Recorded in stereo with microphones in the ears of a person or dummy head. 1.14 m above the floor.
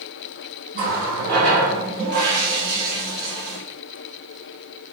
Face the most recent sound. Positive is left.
turn(degrees=-50)  # may be behind; listen again after turning